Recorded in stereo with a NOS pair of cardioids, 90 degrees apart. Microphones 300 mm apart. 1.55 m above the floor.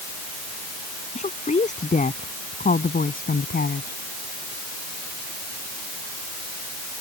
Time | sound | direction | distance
1.1 | a woman speaking | 20° left | ?